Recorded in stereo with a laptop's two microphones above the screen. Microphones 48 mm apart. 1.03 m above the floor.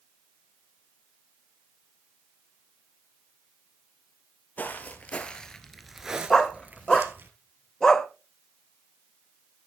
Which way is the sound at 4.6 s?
40° left (ahead or behind).